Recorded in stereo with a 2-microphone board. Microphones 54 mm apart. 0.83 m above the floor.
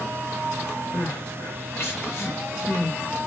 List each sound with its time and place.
0.9 s crying: 45° left (ahead or behind), 1.1 m